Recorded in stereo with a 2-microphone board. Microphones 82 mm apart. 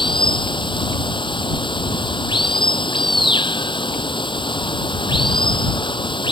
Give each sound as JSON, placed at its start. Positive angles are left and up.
{"t": 0.0, "sound": "running water", "side_deg": 85}